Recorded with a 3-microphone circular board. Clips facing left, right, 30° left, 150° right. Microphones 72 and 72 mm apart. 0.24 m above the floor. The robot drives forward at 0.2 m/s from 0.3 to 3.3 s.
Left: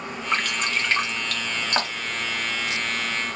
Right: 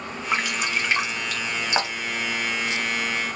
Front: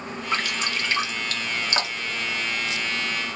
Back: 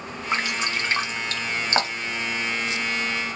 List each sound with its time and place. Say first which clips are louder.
0.3 s dripping: even, back 1 dB; 160° right, 0.9 m; by 2.2 s 170° right, 1.1 m